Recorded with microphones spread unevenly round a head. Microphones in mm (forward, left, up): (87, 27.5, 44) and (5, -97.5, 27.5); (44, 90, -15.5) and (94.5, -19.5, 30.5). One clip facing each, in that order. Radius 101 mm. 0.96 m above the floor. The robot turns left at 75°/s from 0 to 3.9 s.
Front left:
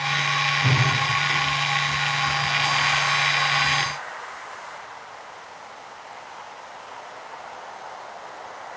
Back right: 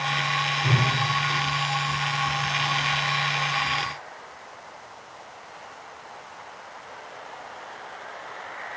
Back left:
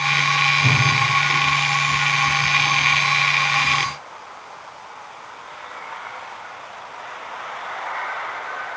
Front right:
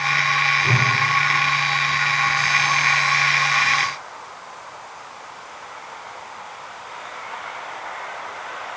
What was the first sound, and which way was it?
A whoosh, 115° left.